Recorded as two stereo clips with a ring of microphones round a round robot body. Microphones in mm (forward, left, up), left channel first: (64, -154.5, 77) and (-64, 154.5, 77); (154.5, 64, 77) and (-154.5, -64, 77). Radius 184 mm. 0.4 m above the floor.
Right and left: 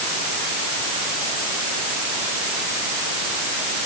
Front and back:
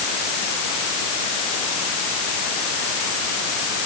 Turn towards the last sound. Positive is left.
No sound to turn to.